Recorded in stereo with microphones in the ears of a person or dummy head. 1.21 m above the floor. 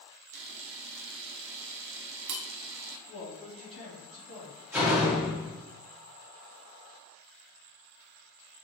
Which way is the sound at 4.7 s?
15° right (ahead or behind).